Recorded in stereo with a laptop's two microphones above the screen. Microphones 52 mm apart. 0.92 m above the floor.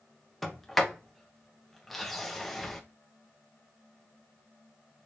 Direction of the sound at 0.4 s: Centre (ahead or behind).